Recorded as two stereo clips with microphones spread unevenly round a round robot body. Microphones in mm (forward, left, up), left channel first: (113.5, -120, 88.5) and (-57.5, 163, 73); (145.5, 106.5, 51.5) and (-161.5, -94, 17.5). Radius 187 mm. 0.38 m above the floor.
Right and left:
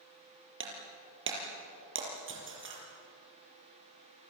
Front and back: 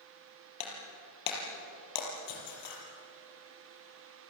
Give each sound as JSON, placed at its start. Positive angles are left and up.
{"t": 0.6, "sound": "breaking glass", "azimuth_deg": 65, "distance_m": 6.0}